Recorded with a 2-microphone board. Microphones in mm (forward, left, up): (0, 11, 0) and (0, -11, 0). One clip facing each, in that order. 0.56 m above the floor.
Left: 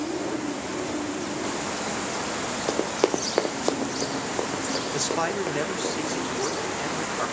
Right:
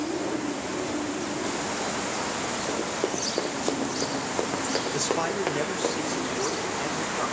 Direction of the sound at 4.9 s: 5° left (ahead or behind).